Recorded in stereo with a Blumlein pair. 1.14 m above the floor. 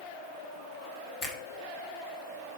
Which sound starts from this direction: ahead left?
A finger snap, at 1.2 s.